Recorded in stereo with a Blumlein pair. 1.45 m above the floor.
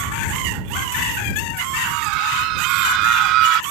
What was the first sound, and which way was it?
A scream, 45° right.